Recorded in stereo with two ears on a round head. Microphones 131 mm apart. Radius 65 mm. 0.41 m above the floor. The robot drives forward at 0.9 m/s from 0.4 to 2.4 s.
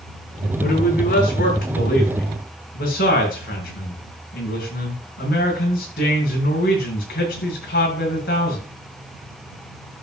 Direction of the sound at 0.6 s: 65° left (ahead or behind).